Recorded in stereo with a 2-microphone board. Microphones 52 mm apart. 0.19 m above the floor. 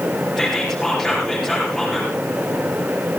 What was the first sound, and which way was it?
Whispering, 5° left (ahead or behind).